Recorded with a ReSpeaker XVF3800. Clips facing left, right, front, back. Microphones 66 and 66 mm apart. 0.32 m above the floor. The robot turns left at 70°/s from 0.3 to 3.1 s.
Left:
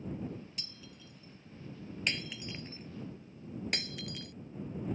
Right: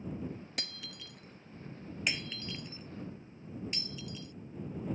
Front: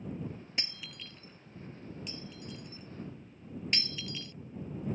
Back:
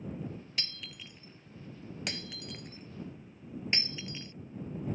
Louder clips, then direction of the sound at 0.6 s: Right 6 dB, front 1 dB; 70° right.